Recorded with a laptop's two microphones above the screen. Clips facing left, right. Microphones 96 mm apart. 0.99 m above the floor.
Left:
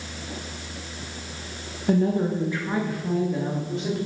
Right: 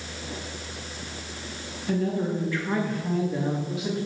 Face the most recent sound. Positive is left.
turn(degrees=-5)  # may be behind; listen again after turning